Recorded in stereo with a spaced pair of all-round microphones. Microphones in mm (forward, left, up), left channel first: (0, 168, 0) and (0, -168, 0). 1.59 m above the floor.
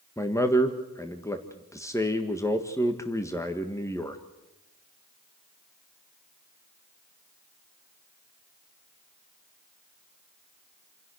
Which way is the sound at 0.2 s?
10° left (ahead or behind).